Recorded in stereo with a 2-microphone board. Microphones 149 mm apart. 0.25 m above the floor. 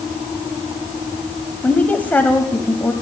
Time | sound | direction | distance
1.6 | a woman speaking | 10° left (ahead or behind) | 1.0 m